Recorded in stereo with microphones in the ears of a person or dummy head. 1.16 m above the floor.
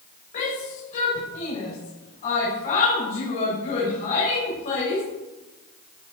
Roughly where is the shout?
Left.